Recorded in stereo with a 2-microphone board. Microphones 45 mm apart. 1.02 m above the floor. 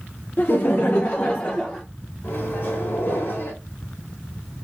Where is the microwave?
55° left (ahead or behind), 2.5 m.